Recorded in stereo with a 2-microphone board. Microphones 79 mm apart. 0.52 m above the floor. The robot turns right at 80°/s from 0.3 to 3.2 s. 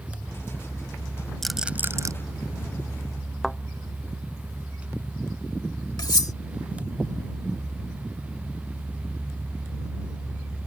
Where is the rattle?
5° left (ahead or behind); by 2.1 s 50° right (ahead or behind).